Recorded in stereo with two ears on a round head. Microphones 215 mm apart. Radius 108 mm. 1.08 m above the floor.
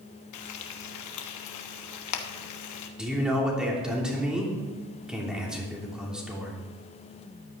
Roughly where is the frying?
Left.